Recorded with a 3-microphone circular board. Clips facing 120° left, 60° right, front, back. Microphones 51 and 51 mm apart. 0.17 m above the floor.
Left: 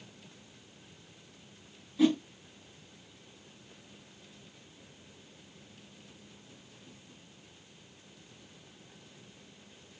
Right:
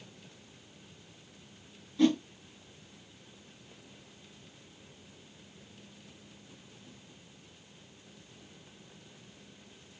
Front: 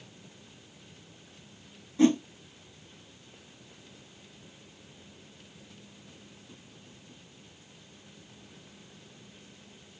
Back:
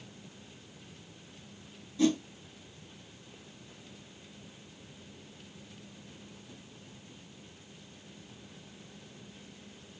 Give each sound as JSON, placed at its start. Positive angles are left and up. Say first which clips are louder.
{"t": 2.0, "sound": "a whoosh", "louder": "even, front 5 dB", "azimuth_deg": 35, "distance_m": 0.6}